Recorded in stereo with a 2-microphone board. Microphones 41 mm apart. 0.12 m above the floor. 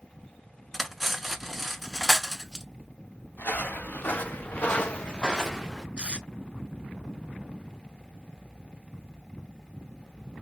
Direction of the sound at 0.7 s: Centre (ahead or behind).